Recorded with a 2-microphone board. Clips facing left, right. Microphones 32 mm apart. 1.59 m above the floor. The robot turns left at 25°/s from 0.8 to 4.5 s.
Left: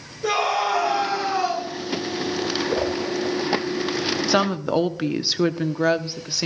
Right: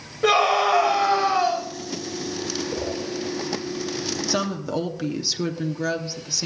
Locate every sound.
0.2 s a scream: 70° right (ahead or behind), 2.5 m; by 1.6 s 50° right (ahead or behind), 2.5 m
2.7 s a whoosh: 60° left (ahead or behind), 2.5 m; by 3.0 s 65° left (ahead or behind), 2.5 m
4.3 s a woman speaking: 35° left (ahead or behind), 0.7 m; by 6.5 s 30° left (ahead or behind), 0.7 m